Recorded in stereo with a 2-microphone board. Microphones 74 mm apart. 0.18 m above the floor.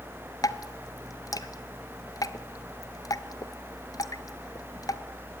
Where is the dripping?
50° left (ahead or behind), 0.7 m.